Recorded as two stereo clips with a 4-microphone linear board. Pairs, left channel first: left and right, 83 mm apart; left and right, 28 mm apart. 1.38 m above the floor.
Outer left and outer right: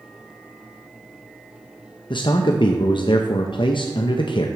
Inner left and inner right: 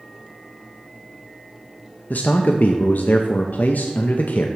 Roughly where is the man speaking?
Left.